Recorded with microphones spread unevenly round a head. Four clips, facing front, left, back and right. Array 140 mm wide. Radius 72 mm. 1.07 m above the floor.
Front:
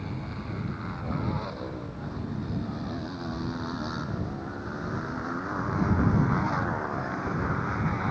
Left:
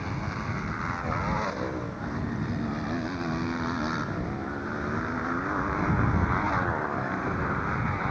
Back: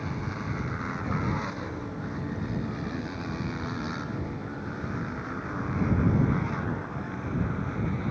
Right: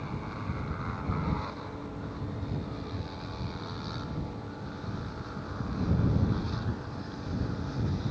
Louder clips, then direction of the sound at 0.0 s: Left 4 dB, back 3 dB; 95° left.